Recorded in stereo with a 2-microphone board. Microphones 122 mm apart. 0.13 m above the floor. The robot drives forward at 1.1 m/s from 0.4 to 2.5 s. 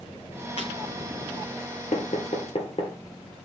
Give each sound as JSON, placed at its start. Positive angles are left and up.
{"t": 0.6, "sound": "breaking glass", "side_deg": 55, "distance_m": 6.0}
{"t": 1.9, "sound": "knocking", "side_deg": 60, "distance_m": 1.8}